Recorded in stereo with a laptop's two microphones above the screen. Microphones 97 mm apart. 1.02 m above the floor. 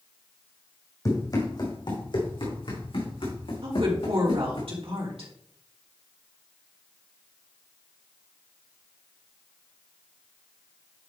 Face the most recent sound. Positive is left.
turn(degrees=-70)  # may be behind; listen again after turning